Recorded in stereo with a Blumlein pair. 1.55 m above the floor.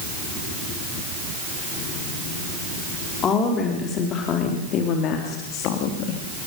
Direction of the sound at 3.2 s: 25° left.